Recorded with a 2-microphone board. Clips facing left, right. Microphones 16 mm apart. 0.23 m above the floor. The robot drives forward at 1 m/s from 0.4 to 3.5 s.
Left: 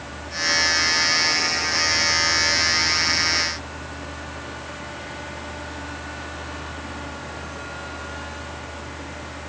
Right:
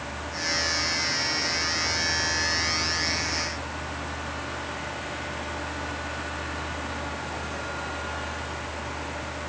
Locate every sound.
Only background noise.